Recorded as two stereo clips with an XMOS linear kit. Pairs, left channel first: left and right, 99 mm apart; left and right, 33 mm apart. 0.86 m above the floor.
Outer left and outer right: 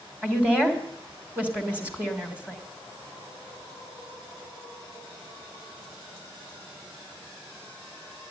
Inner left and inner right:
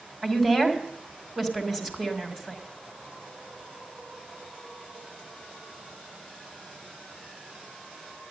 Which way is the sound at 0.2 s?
15° right (ahead or behind).